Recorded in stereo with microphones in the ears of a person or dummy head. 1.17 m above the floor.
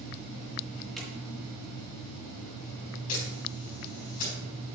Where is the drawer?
Centre (ahead or behind), 3.5 m.